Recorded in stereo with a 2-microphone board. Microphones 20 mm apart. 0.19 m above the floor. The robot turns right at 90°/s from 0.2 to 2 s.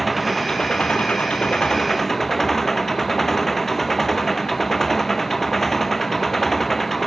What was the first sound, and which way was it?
An engine running, 5° left.